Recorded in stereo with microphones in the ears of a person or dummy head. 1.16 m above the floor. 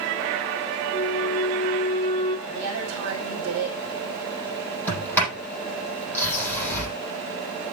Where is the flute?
25° left (ahead or behind), 1.4 m.